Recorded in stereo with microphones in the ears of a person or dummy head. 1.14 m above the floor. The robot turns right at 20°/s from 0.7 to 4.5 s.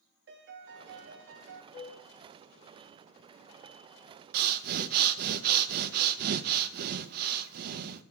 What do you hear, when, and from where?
0.3 s a piano: 55° right (ahead or behind), 0.7 m; by 1.6 s 60° right (ahead or behind), 0.7 m
1.7 s a flute: 10° right (ahead or behind), 5 m; by 1.9 s 15° right (ahead or behind), 5 m
4.3 s breathing: 55° right (ahead or behind), 0.5 m